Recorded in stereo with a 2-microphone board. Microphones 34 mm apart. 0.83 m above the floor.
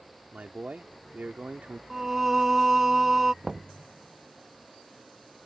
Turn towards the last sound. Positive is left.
turn(degrees=-15)  # may be behind; listen again after turning